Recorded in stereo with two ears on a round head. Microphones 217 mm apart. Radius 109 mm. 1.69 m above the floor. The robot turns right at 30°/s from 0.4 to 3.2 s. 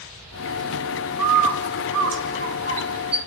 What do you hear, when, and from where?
1.2 s a bird: 80° right, 2 m; by 3.2 s 25° right (ahead or behind), 2 m